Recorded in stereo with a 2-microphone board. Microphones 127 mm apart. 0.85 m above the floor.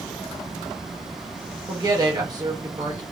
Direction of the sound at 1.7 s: 30° right (ahead or behind).